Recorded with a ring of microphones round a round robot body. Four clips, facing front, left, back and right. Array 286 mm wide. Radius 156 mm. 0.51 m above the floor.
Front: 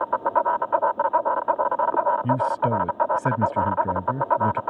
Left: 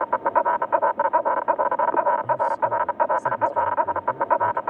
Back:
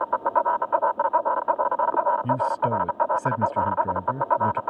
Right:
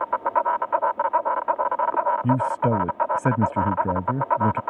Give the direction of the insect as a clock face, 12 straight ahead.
10 o'clock.